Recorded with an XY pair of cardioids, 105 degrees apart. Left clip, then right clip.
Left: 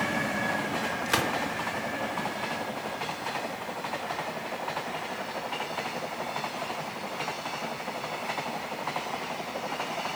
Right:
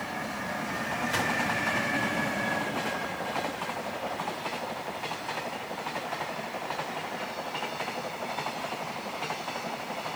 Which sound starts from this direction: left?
A gunshot, at 1.1 s.